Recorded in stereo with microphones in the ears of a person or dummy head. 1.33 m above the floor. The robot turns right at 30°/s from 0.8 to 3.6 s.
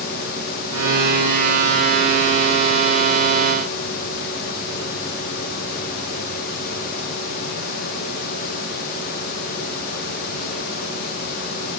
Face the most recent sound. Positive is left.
No sound to turn to.